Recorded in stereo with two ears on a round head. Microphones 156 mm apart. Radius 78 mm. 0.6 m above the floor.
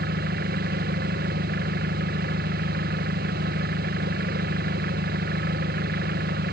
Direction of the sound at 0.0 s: 55° right (ahead or behind).